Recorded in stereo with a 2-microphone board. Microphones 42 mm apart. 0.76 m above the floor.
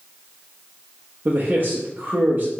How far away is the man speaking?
About 0.8 m.